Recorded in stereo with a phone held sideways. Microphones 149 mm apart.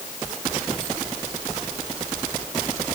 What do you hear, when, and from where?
Only background noise.